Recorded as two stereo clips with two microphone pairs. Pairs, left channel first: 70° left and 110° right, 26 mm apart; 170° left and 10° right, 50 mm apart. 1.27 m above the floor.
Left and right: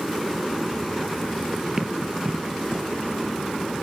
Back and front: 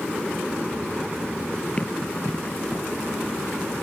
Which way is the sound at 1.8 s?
155° right.